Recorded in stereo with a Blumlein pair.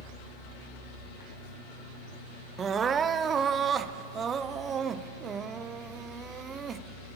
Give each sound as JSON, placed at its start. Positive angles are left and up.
{"t": 2.6, "sound": "crying", "azimuth_deg": -25, "distance_m": 0.7}